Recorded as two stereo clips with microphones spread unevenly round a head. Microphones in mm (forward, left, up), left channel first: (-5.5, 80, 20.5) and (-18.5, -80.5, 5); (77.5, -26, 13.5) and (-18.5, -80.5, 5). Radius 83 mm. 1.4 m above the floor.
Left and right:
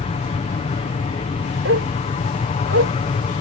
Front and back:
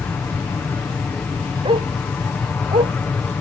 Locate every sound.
0.0 s an aircraft: 100° left
1.6 s a dog barking: 110° right